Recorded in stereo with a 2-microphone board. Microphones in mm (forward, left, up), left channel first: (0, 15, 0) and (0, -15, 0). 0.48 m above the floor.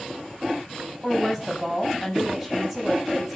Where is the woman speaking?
10° right (ahead or behind), 4 m.